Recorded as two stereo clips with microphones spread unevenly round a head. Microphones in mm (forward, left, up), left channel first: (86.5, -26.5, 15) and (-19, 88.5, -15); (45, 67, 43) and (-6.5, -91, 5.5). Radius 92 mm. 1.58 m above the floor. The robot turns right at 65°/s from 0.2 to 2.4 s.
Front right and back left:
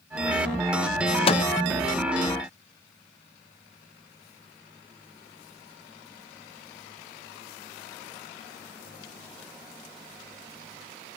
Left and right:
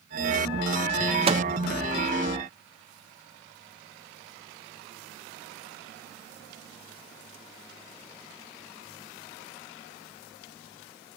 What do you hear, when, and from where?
1.3 s a microwave: 50° right, 0.9 m; by 1.4 s 40° right, 0.9 m